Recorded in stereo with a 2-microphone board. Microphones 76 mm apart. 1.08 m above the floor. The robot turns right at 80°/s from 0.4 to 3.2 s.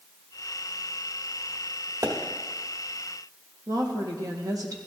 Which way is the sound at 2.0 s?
65° right (ahead or behind).